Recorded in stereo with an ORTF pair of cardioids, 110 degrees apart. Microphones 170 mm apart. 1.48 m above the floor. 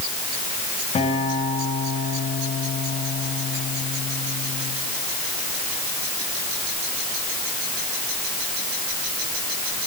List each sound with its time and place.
0.9 s a guitar: 35° left, 7 m